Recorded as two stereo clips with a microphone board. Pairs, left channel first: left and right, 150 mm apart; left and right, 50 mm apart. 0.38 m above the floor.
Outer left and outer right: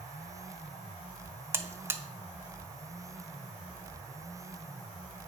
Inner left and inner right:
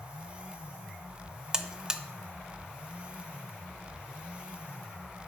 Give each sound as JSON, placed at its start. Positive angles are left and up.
{"t": 1.5, "sound": "a buzzer", "side_deg": -15, "distance_m": 0.7}